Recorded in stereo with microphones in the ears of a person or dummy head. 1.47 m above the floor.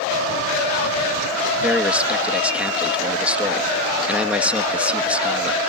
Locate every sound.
1.6 s a man speaking: centre (ahead or behind)